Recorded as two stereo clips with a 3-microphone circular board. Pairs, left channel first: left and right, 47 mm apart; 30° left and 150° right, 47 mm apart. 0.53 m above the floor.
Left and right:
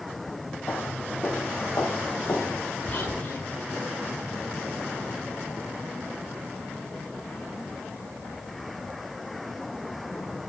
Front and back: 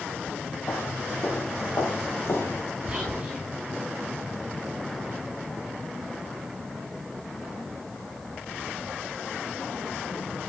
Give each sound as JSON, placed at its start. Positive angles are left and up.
{"t": 0.7, "sound": "footsteps", "azimuth_deg": 55, "distance_m": 4.0}
{"t": 2.9, "sound": "whispering", "azimuth_deg": 140, "distance_m": 4.5}